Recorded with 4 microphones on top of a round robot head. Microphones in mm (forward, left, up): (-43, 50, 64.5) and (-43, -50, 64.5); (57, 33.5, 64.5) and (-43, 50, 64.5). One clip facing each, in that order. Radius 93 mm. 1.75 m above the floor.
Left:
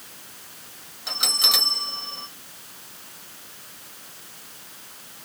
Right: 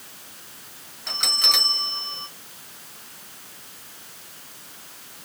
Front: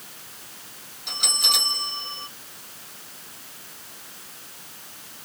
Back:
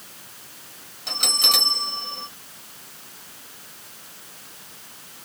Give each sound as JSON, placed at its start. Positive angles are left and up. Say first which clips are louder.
{"t": 1.1, "sound": "a bell", "louder": "right 1 dB, back 3 dB", "azimuth_deg": 165, "distance_m": 1.2}